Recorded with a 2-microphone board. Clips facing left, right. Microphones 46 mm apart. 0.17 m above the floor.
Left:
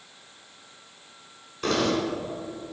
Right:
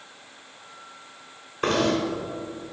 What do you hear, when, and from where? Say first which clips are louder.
1.6 s knocking: right 2 dB; 35° right (ahead or behind), 1.5 m